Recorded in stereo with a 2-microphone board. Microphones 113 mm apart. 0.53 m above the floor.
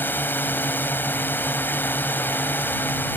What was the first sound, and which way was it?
A drone, 15° left (ahead or behind).